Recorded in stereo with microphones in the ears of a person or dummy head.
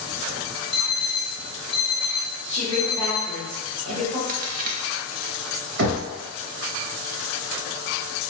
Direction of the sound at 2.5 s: 45° right (ahead or behind).